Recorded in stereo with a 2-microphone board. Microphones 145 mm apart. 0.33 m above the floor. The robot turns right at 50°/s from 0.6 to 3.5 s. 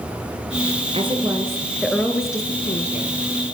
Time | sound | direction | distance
0.9 | a woman speaking | 45° right | 4.5 m